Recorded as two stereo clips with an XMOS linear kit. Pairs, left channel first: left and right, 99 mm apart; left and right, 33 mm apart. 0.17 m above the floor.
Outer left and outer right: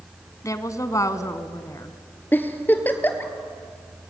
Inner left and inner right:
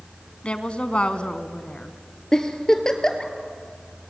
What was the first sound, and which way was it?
A woman speaking, 35° left (ahead or behind).